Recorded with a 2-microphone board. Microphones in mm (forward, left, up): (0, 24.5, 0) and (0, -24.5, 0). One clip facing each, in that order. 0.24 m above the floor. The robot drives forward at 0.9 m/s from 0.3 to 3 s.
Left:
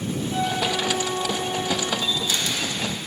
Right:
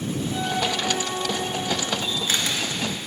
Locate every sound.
0.3 s a flute: 35° left (ahead or behind), 3.5 m; by 1.9 s 55° left (ahead or behind), 2.5 m
2.0 s a camera shutter: 45° right (ahead or behind), 2 m; by 2.7 s 40° right (ahead or behind), 2.5 m